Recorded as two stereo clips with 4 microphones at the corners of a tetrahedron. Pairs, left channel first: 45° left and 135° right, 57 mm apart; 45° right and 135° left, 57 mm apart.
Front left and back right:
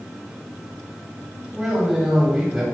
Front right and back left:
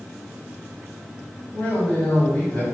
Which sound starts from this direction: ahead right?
A man speaking, at 1.5 s.